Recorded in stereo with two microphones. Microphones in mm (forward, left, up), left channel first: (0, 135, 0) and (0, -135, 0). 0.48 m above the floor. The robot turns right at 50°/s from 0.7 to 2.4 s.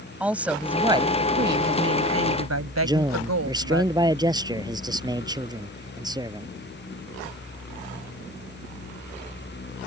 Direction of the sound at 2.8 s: 15° right (ahead or behind).